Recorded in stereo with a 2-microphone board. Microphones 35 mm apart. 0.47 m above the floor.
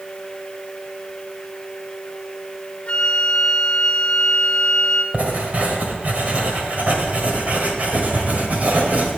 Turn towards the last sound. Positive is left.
turn(degrees=-50)  # may be behind; listen again after turning